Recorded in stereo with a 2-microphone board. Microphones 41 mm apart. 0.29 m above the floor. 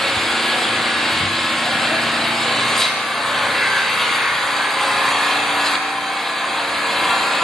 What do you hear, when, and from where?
0.0 s an engine running: 10° left (ahead or behind), 4.5 m